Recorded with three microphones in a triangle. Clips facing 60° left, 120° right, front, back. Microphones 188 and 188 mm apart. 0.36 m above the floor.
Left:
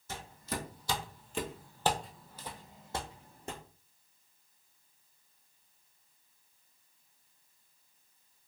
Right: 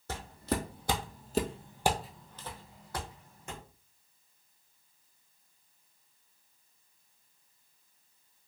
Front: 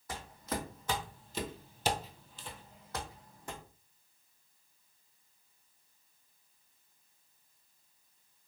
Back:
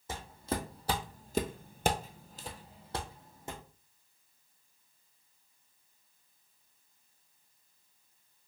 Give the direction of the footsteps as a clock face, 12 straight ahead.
4 o'clock.